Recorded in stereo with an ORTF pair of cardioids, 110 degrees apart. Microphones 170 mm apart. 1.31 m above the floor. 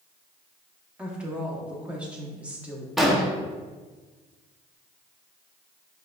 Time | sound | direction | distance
1.0 | a woman speaking | 5° right | 0.9 m
3.0 | an explosion | straight ahead | 0.6 m